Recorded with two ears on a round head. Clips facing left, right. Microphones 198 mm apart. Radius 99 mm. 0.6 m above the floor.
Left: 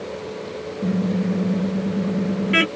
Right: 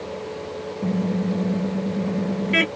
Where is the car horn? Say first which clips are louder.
Left 2 dB; 10° left (ahead or behind).